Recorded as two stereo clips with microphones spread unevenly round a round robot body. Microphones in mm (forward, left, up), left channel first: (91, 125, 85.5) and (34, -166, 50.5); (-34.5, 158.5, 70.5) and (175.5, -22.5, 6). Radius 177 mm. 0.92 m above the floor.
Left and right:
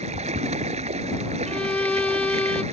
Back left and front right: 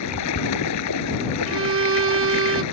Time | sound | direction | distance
0.0 | running water | 175° right | ?
1.5 | a violin | straight ahead | ?